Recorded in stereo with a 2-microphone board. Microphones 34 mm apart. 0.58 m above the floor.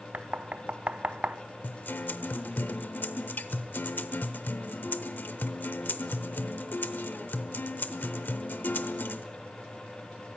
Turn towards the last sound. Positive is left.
turn(degrees=80)